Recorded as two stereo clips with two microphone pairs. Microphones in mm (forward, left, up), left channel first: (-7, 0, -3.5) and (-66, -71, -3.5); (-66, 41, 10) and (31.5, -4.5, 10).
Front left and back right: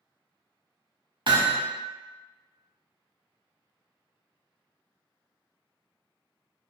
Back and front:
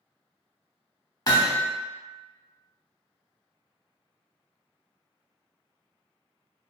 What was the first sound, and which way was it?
Hammering, 155° right.